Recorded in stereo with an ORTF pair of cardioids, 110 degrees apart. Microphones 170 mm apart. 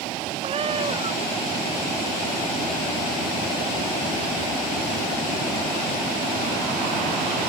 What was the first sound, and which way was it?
A cat meowing, 35° right.